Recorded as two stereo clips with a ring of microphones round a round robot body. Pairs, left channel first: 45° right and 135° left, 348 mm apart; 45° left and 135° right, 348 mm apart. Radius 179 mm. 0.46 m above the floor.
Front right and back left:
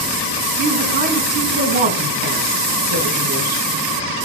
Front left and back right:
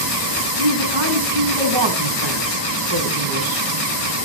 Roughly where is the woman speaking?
Behind.